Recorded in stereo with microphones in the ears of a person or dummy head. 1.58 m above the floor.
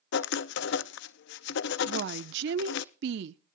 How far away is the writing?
About 0.6 m.